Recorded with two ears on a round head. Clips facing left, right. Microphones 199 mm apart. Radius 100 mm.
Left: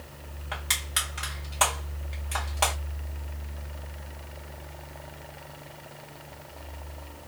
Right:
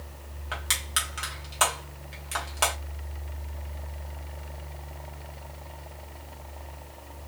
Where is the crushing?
15° right (ahead or behind), 1.5 m.